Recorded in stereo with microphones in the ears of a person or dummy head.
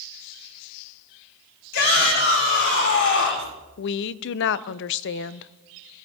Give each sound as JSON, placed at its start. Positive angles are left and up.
{"t": 1.7, "sound": "a shout", "side_deg": 75, "distance_m": 6.5}
{"t": 3.8, "sound": "a woman speaking", "side_deg": 65, "distance_m": 0.5}